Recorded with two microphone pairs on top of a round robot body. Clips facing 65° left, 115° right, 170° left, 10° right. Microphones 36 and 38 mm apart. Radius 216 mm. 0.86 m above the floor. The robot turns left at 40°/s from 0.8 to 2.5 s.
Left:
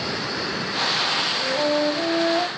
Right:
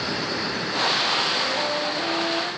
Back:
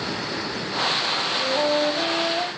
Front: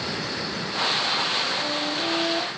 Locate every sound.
1.4 s a flute: 150° left, 1.7 m; by 2.5 s 105° left, 1.7 m